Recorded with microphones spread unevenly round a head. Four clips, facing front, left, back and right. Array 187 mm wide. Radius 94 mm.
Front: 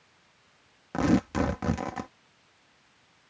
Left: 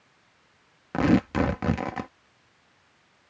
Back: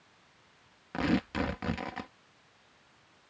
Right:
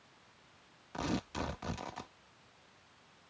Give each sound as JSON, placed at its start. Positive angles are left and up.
{"t": 0.9, "sound": "tearing paper", "azimuth_deg": 70}